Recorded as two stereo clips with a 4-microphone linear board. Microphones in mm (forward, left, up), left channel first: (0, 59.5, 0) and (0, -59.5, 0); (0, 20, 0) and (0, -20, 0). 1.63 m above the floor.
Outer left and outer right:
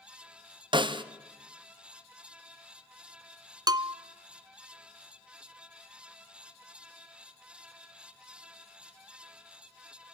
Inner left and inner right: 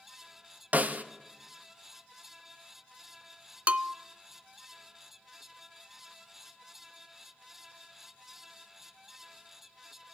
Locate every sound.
0.7 s a snare drum: 45° right (ahead or behind), 0.8 m
3.7 s a bell: 35° right (ahead or behind), 0.5 m